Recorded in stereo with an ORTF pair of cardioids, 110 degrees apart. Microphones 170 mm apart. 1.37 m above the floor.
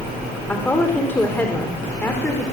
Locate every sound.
0.5 s a woman speaking: 10° left, 3.5 m